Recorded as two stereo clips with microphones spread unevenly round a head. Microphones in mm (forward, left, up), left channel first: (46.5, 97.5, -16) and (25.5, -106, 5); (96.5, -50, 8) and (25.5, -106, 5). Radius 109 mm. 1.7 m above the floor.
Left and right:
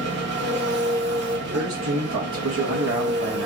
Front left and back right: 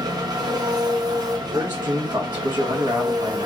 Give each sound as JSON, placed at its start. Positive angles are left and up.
{"t": 0.0, "sound": "an engine running", "azimuth_deg": -105, "distance_m": 1.0}
{"t": 1.4, "sound": "a man speaking", "azimuth_deg": -110, "distance_m": 1.8}